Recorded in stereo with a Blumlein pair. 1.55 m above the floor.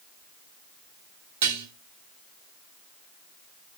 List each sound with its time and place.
1.4 s dishes clattering: 55° right, 3 m